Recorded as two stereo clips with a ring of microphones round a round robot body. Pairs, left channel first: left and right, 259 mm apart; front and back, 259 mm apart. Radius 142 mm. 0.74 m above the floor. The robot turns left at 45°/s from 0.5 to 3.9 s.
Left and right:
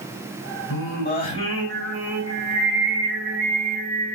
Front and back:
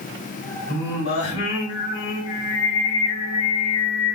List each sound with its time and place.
0.7 s singing: 55° left, 3.5 m; by 4.2 s 90° right, 3.5 m